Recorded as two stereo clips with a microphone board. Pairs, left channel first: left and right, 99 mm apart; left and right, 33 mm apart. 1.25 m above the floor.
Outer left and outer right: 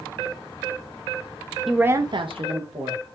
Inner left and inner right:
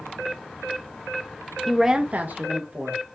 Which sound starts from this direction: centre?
A woman speaking, at 1.7 s.